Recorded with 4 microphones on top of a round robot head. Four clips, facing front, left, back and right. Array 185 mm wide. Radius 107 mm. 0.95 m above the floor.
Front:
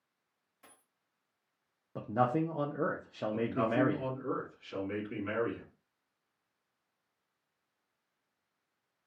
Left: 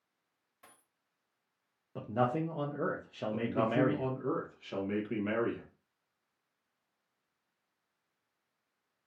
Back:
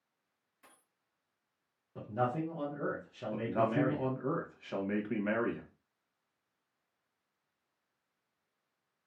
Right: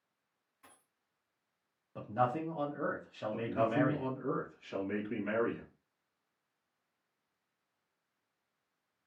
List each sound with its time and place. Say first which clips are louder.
0.6 s a dropped coin: left 1 dB, front 2 dB; 80° left, 1.3 m
1.9 s a man speaking: left 1 dB, front 4 dB; 30° left, 0.6 m
3.3 s a man speaking: left 1 dB, even; 165° left, 1.1 m